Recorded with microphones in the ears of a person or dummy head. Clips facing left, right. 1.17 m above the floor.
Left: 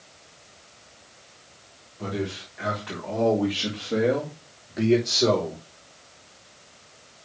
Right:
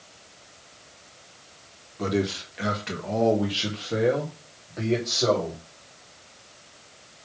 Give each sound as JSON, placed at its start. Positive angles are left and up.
{"t": 2.0, "sound": "a man speaking", "side_deg": -55, "distance_m": 1.6}